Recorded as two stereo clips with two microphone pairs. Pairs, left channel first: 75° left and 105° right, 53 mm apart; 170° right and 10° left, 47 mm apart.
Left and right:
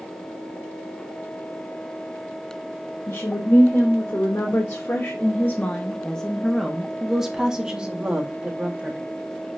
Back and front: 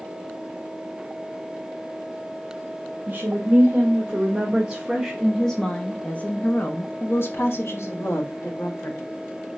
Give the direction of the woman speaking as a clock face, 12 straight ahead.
10 o'clock.